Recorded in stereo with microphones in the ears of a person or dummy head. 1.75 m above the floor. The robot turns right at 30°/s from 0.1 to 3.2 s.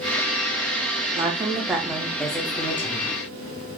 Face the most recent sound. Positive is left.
turn(degrees=35)